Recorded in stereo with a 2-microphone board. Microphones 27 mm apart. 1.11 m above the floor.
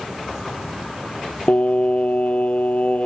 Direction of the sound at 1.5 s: 55° left (ahead or behind).